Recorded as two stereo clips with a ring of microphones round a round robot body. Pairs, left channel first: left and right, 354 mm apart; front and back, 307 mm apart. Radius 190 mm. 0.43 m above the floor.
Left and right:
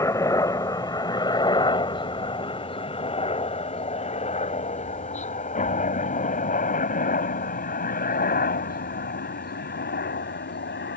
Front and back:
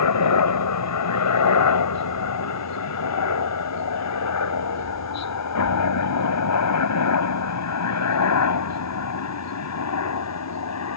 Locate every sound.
0.0 s a helicopter: 10° left; by 11.0 s 30° left